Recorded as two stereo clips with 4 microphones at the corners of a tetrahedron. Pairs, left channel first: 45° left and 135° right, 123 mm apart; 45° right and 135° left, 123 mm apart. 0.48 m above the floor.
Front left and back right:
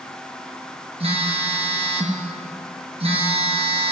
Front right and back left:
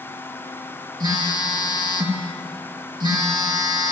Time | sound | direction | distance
1.0 | a phone buzzing | 170° right | 1.8 m